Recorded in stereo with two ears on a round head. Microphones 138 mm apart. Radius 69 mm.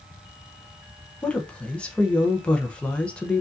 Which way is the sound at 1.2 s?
5° left (ahead or behind).